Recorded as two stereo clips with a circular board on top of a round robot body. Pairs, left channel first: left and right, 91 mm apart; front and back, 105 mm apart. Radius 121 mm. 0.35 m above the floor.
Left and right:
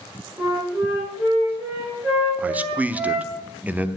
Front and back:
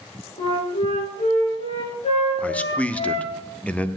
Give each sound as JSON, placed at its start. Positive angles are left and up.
{"t": 0.4, "sound": "a flute", "azimuth_deg": -15, "distance_m": 5.5}
{"t": 2.4, "sound": "a man speaking", "azimuth_deg": -50, "distance_m": 0.9}